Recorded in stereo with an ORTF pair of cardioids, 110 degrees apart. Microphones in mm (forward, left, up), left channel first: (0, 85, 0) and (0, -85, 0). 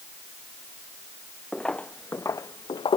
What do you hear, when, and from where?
1.5 s footsteps: 5° left; by 3.0 s 35° left